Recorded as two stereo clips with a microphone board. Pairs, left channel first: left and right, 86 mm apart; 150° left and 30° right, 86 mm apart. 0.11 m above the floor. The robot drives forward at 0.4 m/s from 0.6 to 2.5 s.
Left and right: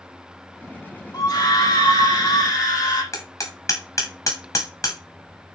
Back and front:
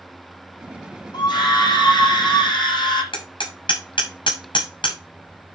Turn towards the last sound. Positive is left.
turn(degrees=135)